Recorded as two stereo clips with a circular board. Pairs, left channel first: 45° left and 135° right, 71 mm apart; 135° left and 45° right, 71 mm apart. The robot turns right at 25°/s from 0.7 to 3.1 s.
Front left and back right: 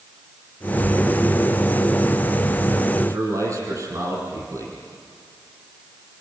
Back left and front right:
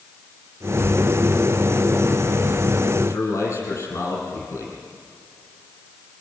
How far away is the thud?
I don't hear a thud.